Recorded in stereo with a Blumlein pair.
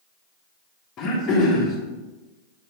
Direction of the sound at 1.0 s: 30° left.